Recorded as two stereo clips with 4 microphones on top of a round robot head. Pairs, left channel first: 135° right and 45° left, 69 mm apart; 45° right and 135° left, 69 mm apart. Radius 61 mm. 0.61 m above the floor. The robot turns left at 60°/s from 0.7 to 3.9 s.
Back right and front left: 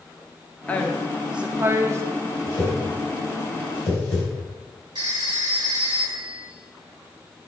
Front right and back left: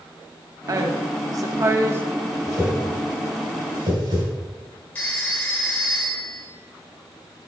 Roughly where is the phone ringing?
Ahead left.